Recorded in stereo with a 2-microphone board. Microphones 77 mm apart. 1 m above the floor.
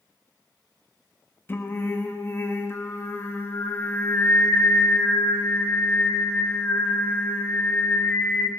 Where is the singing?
30° left (ahead or behind), 1.0 m.